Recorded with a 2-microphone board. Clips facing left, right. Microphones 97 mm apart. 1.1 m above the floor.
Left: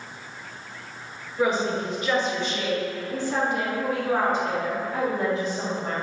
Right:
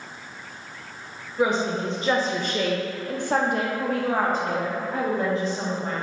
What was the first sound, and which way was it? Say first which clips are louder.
A woman speaking: right 1 dB; 15° right (ahead or behind).